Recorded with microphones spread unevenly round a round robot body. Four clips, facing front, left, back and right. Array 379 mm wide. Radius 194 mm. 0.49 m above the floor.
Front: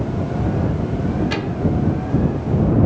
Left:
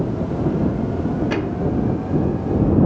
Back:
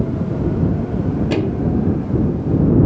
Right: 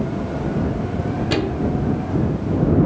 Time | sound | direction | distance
1.3 | a microwave | 160° right | ?